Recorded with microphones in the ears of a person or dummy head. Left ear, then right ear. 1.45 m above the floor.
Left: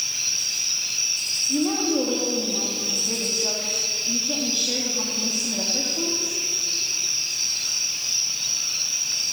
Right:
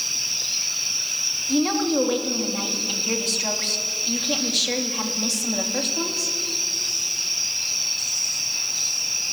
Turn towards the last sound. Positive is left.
turn(degrees=-65)  # may be behind; listen again after turning